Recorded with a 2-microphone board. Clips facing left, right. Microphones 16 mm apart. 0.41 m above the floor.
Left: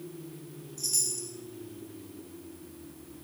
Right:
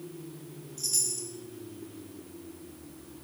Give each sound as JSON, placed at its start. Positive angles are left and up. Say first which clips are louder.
{"t": 0.8, "sound": "a chime", "louder": "even", "side_deg": -5, "distance_m": 1.2}